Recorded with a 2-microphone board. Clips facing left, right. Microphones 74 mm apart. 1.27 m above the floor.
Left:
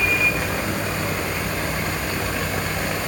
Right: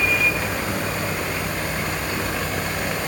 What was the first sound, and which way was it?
Only background noise.